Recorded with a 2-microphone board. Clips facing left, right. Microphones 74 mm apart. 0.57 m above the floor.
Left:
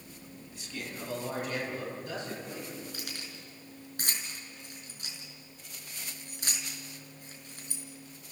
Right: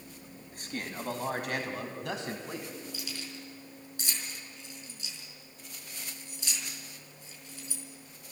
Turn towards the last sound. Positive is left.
turn(degrees=45)  # may be behind; listen again after turning